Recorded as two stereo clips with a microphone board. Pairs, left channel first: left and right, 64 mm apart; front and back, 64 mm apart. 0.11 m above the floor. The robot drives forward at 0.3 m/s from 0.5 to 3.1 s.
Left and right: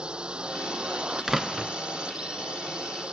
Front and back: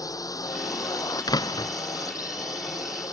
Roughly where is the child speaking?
No child speaking in this recording.